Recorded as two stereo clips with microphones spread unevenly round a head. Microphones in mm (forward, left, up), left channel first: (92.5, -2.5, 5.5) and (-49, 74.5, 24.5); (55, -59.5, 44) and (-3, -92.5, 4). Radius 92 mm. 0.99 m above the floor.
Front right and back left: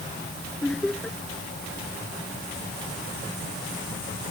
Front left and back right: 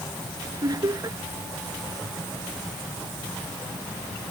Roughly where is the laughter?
Behind right.